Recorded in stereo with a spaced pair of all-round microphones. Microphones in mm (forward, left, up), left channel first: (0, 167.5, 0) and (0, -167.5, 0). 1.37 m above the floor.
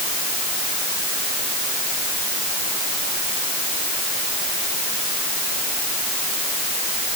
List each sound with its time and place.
Only background noise.